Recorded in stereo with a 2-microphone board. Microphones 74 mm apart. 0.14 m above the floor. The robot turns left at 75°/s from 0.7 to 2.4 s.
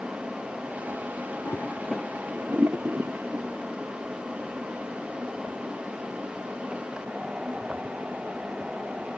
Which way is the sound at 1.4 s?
40° left (ahead or behind).